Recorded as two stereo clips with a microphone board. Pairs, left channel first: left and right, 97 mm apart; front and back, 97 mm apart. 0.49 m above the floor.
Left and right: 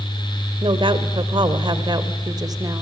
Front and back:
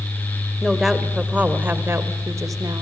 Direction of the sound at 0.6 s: 90° right.